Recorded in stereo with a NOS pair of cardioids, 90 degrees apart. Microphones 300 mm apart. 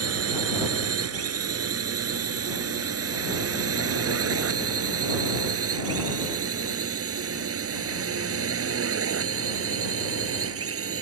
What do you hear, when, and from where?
0.0 s a drone: 50° right; by 11.0 s 45° right